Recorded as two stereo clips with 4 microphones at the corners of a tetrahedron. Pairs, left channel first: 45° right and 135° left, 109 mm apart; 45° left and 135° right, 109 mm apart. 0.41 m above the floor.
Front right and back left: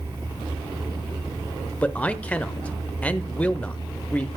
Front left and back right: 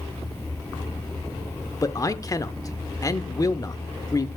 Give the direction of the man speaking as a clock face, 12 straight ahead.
11 o'clock.